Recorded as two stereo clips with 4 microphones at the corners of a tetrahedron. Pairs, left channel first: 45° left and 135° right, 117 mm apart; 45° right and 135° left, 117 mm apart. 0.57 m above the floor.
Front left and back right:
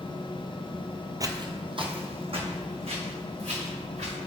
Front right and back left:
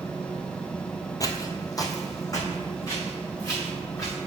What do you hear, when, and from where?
1.2 s footsteps: 90° right, 0.7 m; by 4.1 s 110° right, 3.5 m